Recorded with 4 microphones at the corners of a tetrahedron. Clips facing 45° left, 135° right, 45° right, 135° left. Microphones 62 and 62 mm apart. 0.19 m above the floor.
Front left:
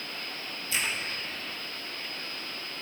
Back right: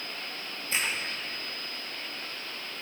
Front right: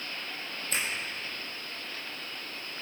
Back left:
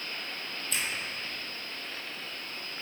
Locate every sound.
0.7 s a finger snap: 90° right, 4.5 m